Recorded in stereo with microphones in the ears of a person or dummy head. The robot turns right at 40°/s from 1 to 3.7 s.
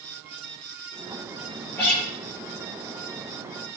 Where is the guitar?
10° left (ahead or behind), 7 m; by 2.0 s centre (ahead or behind), 7 m.